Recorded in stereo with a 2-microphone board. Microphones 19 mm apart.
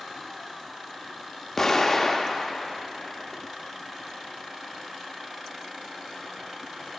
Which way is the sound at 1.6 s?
20° left (ahead or behind).